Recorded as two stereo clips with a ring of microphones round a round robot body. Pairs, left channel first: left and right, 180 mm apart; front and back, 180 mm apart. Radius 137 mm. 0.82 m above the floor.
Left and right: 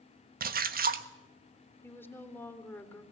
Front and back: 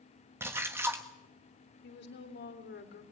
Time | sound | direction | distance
0.4 | a splash | 105° right | 1.3 m
1.8 | a woman speaking | 10° left | 3.5 m